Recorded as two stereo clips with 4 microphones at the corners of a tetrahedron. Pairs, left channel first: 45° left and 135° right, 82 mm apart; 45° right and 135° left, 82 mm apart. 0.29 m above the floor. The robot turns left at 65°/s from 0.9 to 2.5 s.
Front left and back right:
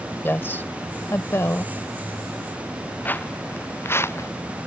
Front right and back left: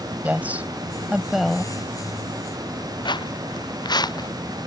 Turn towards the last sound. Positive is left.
turn(degrees=-10)